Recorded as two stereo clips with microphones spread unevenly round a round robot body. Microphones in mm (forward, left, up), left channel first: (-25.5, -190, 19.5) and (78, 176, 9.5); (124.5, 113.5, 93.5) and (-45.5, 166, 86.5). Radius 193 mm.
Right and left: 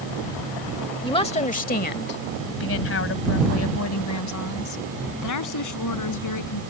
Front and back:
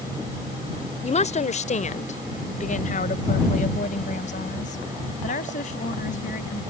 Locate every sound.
1.0 s a woman speaking: 35° right; by 6.6 s 70° right